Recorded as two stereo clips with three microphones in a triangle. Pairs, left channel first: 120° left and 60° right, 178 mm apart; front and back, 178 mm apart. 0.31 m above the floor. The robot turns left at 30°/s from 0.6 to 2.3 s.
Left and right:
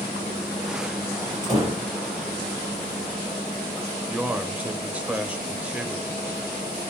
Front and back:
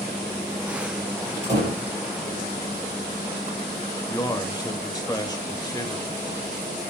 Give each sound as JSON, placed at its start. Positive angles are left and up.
{"t": 1.4, "sound": "a door slam", "azimuth_deg": -125, "distance_m": 4.5}
{"t": 4.1, "sound": "a man speaking", "azimuth_deg": 10, "distance_m": 0.9}